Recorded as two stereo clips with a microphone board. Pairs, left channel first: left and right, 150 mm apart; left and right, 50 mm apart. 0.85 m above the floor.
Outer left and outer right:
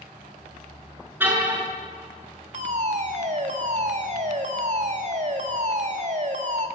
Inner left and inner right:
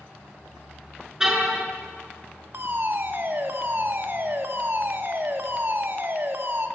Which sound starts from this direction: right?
A fire alarm, at 2.5 s.